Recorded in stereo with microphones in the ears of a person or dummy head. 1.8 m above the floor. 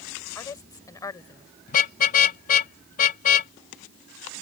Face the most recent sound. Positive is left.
turn(degrees=50)  # may be behind; listen again after turning